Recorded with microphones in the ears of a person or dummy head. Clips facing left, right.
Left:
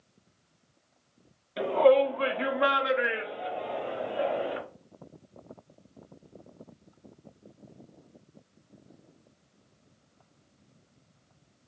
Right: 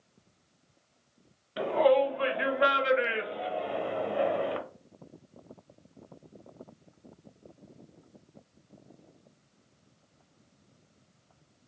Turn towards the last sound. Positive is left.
turn(degrees=-85)